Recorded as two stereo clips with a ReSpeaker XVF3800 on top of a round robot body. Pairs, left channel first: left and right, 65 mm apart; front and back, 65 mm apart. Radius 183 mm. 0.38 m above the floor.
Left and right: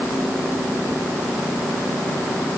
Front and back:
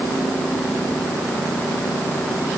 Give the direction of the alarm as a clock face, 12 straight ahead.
I don't hear an alarm.